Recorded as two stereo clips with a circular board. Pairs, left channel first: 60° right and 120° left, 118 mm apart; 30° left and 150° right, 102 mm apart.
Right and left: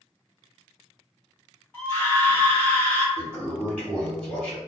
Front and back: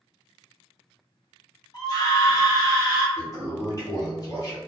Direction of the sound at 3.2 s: 10° left.